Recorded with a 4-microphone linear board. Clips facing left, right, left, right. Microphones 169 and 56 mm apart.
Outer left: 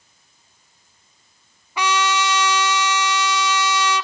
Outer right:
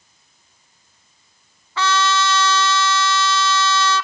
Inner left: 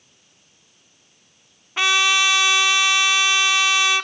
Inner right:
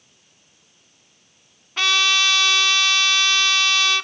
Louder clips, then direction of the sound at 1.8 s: Outer right 1 dB, inner left 2 dB; 15° left (ahead or behind).